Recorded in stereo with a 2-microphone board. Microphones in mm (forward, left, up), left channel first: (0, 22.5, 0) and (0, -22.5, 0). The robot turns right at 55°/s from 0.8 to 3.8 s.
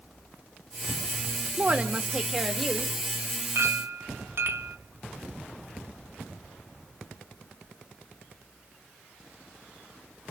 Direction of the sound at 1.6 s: 55° right.